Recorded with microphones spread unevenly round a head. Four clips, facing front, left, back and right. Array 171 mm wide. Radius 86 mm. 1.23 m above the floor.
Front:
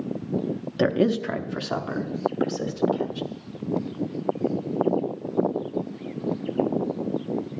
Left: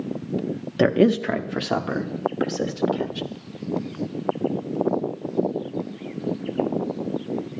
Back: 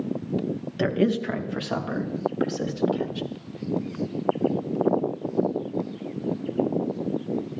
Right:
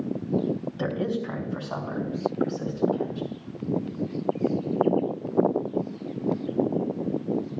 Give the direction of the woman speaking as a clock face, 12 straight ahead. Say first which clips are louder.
Left 13 dB, front 2 dB; 9 o'clock.